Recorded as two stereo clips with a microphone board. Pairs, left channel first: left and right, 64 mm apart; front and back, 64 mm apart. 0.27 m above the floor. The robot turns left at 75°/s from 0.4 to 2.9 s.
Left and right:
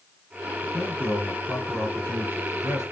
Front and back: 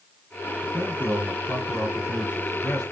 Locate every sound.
0.6 s a man speaking: 70° left, 4 m; by 2.8 s 95° right, 4 m